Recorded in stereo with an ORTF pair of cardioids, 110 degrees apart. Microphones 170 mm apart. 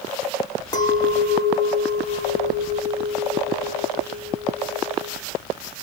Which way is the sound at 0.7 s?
25° left.